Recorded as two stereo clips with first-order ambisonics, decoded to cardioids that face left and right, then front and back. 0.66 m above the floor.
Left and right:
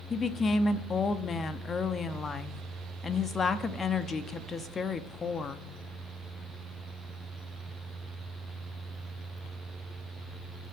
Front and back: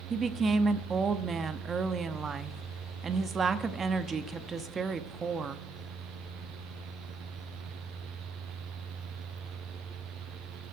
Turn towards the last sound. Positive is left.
turn(degrees=140)